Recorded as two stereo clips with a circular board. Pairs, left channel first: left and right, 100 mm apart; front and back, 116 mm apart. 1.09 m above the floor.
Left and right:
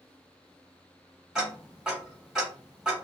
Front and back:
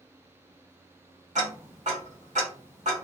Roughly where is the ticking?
Behind.